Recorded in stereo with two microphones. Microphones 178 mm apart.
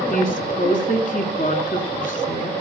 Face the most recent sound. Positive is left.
turn(degrees=50)  # may be behind; listen again after turning